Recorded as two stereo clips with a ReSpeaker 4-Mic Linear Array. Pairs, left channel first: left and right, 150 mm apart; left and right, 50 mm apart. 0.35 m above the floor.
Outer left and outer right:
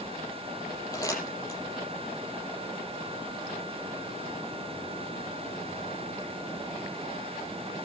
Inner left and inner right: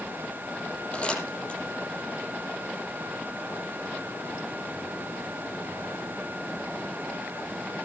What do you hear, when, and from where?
0.9 s crumpling: 25° left (ahead or behind), 8.5 m